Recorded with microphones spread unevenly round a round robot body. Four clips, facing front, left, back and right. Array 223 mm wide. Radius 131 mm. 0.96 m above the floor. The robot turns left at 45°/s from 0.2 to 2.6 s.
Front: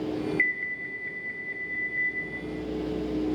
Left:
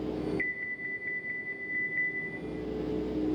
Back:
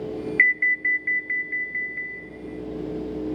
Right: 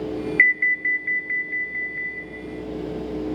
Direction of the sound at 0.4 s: 110° right.